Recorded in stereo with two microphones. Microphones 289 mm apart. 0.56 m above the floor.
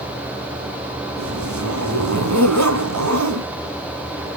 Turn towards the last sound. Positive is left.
turn(degrees=-70)  # may be behind; listen again after turning